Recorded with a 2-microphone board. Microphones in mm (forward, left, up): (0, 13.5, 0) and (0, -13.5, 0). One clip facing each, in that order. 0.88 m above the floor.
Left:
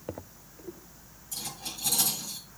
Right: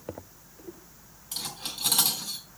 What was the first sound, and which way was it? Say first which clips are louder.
Cutlery clinking: right 3 dB; 80° right.